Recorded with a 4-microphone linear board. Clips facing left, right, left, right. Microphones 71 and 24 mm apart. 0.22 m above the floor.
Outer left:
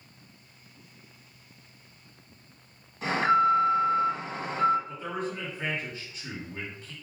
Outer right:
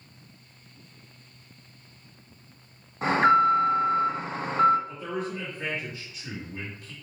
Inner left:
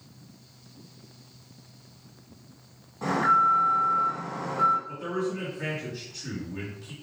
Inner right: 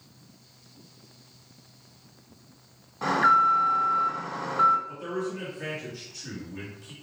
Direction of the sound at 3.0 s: 40° right (ahead or behind).